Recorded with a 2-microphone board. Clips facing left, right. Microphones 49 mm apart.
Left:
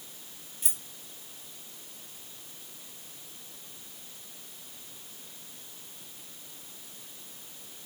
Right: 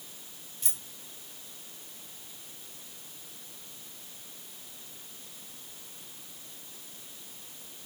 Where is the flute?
I don't hear a flute.